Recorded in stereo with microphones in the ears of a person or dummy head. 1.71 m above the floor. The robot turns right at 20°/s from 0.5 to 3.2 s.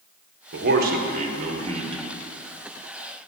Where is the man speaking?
65° right, 1.5 m; by 2.1 s 30° right, 1.5 m.